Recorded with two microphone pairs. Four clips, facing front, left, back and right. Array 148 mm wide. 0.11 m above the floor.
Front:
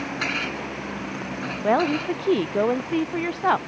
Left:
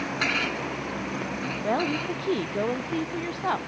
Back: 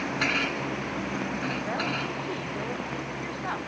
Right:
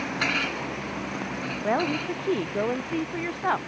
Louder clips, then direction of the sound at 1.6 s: Right 1 dB, front 9 dB; 10° right.